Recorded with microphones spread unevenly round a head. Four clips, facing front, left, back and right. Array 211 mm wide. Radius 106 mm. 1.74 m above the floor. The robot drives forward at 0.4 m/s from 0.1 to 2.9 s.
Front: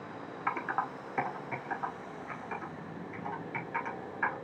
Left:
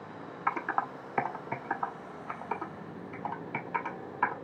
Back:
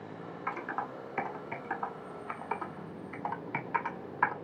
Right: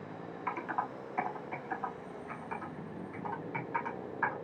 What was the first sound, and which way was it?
Typing on a keyboard, 75° left.